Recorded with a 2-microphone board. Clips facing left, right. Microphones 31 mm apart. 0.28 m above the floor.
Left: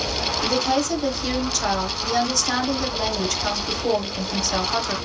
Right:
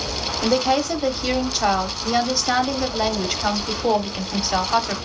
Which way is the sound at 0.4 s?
25° right (ahead or behind).